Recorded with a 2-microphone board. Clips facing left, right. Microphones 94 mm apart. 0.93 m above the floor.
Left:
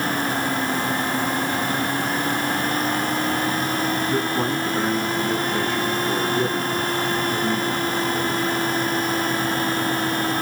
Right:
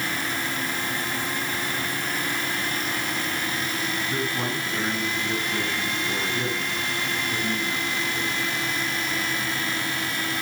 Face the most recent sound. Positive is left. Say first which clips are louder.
# left 6 dB
turn(degrees=30)  # may be behind; listen again after turning